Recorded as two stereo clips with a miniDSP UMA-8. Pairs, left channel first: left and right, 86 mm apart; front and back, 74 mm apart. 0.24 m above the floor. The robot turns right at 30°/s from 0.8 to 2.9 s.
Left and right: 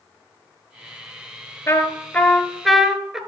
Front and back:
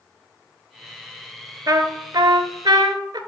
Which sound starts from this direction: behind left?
A trumpet, at 1.7 s.